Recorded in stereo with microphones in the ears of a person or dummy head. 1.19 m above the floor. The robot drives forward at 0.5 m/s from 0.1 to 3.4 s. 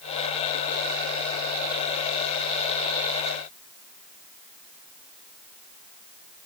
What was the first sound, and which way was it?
Only background noise.